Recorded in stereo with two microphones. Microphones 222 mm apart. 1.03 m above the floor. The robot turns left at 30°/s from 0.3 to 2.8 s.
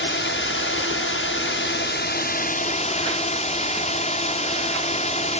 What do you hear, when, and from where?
0.0 s a drone: 110° left; by 5.4 s 35° left